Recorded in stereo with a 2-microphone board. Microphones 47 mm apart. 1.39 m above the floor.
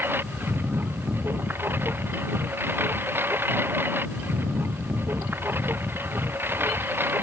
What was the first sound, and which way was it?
A lawn mower, 50° right (ahead or behind).